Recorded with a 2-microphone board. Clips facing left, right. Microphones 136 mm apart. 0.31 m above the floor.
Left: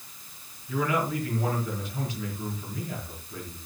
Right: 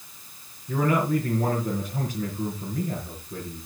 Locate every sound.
0.7 s a man speaking: 55° right (ahead or behind), 4.5 m